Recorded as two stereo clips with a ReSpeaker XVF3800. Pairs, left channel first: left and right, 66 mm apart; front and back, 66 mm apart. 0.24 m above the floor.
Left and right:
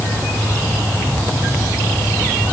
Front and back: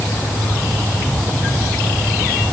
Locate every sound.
Only background noise.